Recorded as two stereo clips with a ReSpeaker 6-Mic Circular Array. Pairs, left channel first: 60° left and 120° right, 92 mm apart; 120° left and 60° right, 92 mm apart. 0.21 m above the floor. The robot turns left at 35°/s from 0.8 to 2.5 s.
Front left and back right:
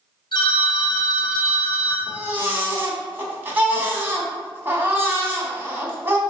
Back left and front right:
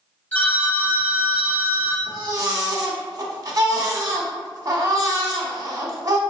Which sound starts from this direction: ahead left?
A phone ringing, at 0.3 s.